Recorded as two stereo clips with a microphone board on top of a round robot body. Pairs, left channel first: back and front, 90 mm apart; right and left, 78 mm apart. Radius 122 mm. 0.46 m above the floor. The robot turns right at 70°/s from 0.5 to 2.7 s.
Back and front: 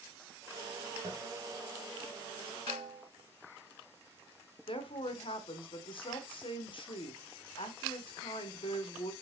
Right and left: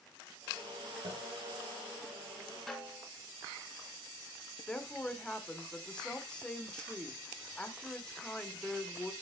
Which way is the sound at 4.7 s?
170° right.